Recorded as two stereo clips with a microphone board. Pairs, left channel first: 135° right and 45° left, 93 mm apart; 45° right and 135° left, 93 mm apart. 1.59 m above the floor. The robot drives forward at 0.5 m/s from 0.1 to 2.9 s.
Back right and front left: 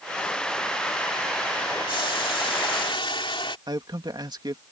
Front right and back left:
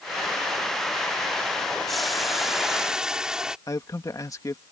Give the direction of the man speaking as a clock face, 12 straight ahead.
12 o'clock.